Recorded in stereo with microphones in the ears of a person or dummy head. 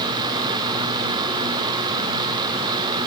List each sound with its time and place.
Only background noise.